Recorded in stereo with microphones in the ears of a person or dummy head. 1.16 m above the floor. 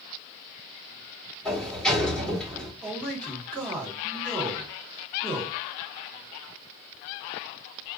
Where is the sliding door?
5° left (ahead or behind), 2.5 m.